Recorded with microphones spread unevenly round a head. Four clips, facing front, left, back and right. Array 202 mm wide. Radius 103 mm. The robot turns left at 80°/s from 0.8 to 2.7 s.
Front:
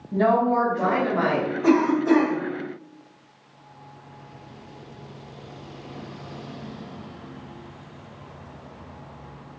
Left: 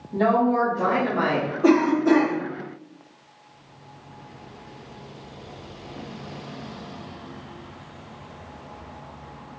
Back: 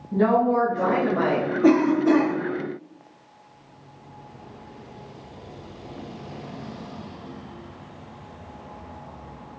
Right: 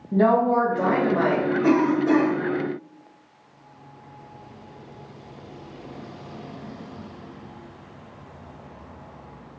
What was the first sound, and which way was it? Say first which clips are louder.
A woman speaking: right 2 dB, even; 95° right.